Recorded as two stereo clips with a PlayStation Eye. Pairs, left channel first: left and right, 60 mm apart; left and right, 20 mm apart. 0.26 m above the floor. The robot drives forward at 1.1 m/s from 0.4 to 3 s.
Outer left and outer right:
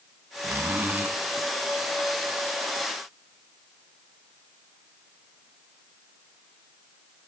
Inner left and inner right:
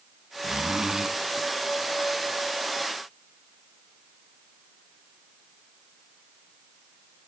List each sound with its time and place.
0.4 s a zipper: 45° right (ahead or behind), 1.3 m; by 1.1 s 35° right (ahead or behind), 1.8 m